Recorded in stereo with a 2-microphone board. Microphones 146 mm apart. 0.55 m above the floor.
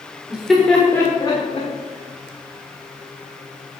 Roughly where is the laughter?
Centre.